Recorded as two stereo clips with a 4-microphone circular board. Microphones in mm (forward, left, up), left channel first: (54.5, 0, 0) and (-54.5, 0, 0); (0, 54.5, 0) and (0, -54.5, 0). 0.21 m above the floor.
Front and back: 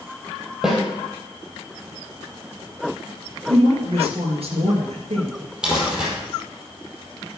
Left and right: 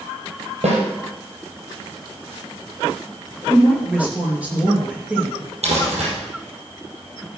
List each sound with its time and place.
0.6 s a snare drum: 95° right, 4.5 m
3.5 s a woman speaking: 165° right, 4 m
5.6 s crumpling: 100° right, 4.5 m